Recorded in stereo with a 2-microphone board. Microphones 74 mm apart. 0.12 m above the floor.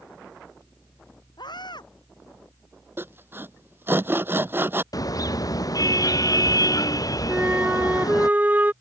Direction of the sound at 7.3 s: 25° right (ahead or behind).